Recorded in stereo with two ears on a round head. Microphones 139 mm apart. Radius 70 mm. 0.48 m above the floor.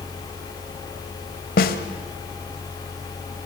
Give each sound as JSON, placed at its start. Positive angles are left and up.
{"t": 1.6, "sound": "a snare drum", "side_deg": 60, "distance_m": 1.8}